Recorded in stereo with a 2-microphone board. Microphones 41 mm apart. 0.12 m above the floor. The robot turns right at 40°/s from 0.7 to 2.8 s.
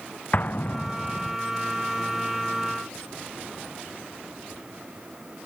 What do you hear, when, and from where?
0.3 s an explosion: 45° left (ahead or behind); by 1.4 s 15° left (ahead or behind)